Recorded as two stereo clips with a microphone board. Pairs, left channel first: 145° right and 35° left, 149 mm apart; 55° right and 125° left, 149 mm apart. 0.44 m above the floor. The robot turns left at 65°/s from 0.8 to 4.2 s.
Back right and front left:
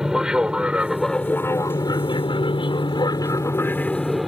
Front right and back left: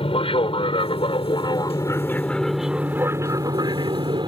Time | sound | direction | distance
0.0 | an aircraft | 50° right | ?